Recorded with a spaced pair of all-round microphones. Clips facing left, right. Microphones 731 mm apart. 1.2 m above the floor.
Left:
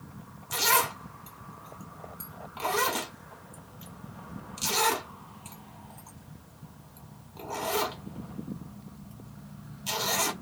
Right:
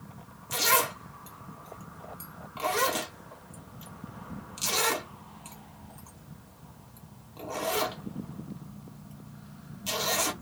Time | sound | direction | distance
0.5 | a zipper | 10° right (ahead or behind) | 0.6 m